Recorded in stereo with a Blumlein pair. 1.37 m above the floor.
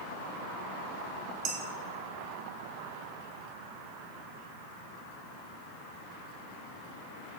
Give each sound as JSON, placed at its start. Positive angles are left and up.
{"t": 1.4, "sound": "dishes clattering", "azimuth_deg": -45, "distance_m": 2.0}